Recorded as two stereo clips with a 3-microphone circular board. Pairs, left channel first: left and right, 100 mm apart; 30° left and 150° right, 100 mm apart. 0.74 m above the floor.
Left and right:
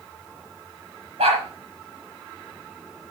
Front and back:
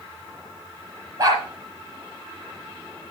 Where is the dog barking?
95° right, 6.5 m.